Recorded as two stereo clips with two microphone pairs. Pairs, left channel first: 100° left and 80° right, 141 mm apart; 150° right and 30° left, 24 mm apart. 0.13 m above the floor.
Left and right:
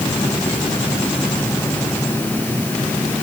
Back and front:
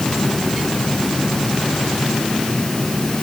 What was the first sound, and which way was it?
Only background noise.